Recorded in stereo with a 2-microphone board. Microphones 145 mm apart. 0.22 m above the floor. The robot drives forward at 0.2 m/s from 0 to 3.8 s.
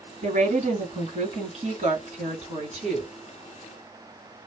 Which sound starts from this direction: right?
A woman speaking, at 0.2 s.